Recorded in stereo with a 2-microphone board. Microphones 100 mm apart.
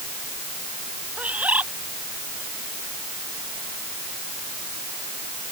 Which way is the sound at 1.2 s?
15° right (ahead or behind).